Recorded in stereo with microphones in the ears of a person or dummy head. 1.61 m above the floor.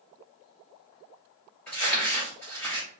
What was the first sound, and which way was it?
Crumpling, 10° left (ahead or behind).